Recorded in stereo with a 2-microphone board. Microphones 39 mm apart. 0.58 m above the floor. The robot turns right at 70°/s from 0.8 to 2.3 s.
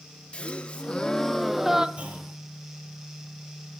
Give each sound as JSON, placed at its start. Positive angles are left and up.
{"t": 0.3, "sound": "a gasp", "azimuth_deg": 130, "distance_m": 0.7}
{"t": 2.0, "sound": "a clunk", "side_deg": -35, "distance_m": 5.5}